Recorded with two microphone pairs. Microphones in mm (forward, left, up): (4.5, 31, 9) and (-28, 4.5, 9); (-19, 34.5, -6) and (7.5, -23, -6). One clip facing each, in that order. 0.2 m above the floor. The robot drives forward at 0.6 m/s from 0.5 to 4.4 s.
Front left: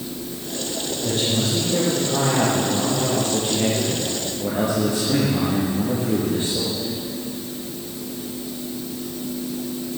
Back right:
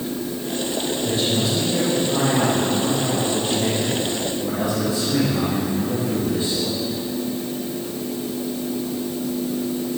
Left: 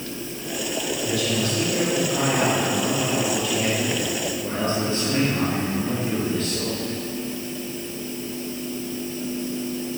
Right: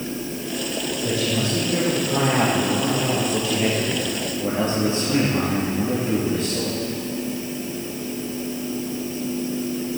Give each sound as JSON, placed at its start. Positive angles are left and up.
{"t": 1.0, "sound": "a man speaking", "azimuth_deg": 5, "distance_m": 7.0}